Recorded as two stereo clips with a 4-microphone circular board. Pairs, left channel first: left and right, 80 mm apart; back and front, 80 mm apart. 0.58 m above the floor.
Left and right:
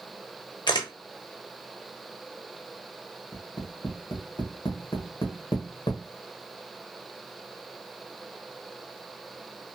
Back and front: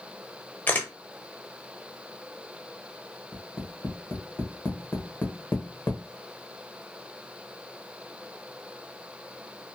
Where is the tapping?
115° left, 0.8 m.